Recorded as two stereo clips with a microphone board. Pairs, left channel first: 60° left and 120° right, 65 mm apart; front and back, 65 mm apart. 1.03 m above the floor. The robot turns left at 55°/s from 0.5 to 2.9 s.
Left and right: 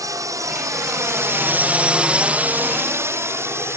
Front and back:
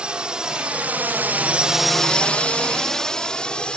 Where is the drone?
105° right; by 3.8 s 75° right.